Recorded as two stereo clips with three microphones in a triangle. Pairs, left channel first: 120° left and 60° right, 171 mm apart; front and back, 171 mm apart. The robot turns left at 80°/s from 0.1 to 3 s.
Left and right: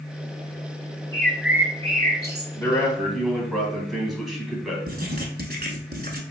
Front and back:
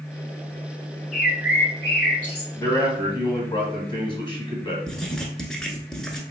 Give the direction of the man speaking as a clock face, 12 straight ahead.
10 o'clock.